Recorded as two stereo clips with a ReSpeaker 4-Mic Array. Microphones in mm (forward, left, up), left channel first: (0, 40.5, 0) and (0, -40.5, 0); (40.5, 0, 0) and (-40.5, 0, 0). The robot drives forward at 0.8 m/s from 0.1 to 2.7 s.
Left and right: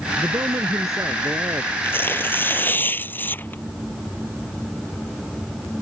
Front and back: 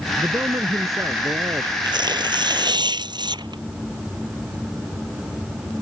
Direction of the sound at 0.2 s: 125° right.